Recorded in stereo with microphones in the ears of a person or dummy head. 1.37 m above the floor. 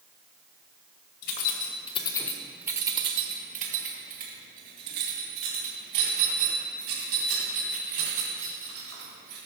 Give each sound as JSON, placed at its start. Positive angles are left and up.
{"t": 1.2, "sound": "keys jangling", "side_deg": 60, "distance_m": 1.0}